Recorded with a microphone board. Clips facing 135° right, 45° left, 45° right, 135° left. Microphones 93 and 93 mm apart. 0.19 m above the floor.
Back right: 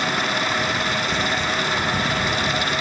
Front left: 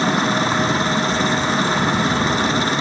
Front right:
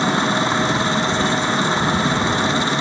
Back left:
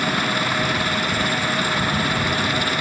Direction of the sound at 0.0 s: 5° left.